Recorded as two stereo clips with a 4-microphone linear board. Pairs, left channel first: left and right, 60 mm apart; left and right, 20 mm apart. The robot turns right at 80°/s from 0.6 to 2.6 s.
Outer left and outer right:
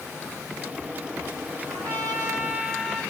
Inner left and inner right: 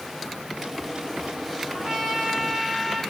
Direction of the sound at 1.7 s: 95° right.